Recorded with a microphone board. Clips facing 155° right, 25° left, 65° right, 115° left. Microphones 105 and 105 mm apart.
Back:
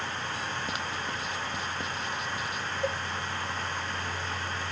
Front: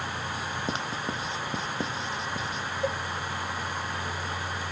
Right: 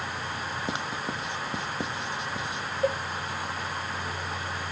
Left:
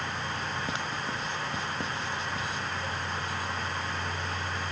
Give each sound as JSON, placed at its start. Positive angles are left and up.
{"t": 0.7, "sound": "writing", "azimuth_deg": -10}
{"t": 2.8, "sound": "a cowbell", "azimuth_deg": -60}